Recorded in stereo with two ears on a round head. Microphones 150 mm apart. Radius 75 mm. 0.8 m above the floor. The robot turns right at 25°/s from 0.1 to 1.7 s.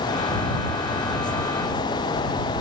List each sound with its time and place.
Only background noise.